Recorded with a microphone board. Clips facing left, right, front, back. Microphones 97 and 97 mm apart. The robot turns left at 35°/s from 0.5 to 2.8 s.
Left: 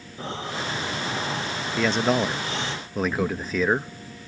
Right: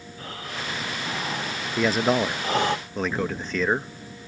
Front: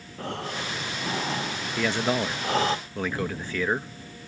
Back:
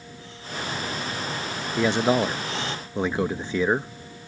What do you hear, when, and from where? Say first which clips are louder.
0.2 s breathing: left 5 dB, front 4 dB; 25° left; by 2.8 s 55° right
1.8 s a man speaking: right 1 dB, back 5 dB; 155° right; by 3.9 s 170° left